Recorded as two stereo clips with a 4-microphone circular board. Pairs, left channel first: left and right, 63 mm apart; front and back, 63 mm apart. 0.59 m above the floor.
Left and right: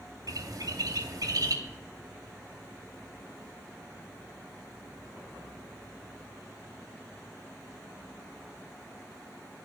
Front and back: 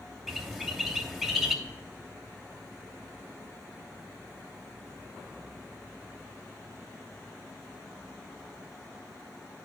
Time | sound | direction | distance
0.3 | a bird | 95° right | 1.7 m
1.6 | whispering | 40° right | 0.8 m